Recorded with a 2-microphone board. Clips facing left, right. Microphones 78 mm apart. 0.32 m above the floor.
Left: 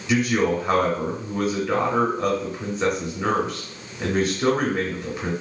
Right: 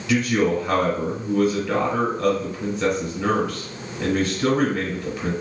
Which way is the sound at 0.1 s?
20° left (ahead or behind).